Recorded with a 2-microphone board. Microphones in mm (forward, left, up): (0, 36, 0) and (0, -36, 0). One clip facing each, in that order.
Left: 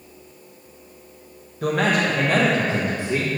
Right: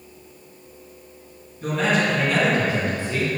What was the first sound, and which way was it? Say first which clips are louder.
A man speaking: left 1 dB; 65° left (ahead or behind).